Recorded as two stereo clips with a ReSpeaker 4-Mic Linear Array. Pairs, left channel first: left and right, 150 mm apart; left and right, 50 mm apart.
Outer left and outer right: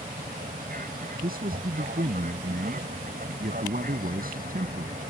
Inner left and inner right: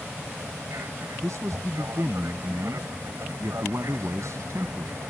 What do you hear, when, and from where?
0.0 s an aircraft: 75° right (ahead or behind)
1.2 s a man speaking: 80° right